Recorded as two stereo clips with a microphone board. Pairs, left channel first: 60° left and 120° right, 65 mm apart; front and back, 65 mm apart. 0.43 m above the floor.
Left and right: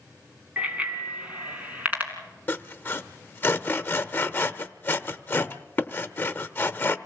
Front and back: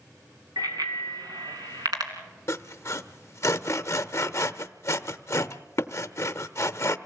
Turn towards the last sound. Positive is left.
turn(degrees=15)